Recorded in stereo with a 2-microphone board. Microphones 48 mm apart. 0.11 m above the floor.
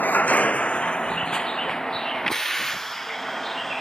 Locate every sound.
0.0 s a vehicle: 40° left (ahead or behind); by 3.8 s 10° left (ahead or behind)